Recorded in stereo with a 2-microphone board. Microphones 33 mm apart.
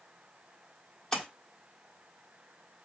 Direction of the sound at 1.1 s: 25° left (ahead or behind).